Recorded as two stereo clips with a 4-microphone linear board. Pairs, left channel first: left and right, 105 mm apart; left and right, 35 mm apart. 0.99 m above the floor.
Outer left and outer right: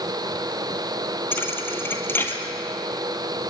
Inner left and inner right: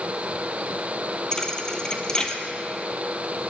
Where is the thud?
20° left (ahead or behind), 2 m.